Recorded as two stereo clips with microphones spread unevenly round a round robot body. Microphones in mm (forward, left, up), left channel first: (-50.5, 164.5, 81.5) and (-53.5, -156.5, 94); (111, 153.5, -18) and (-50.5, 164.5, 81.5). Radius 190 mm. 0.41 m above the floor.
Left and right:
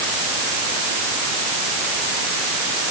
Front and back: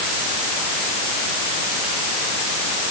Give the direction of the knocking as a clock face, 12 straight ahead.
No knocking in this recording.